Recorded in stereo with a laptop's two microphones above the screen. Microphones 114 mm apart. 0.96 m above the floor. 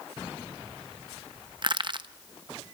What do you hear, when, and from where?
1.6 s crushing: 45° right (ahead or behind), 0.8 m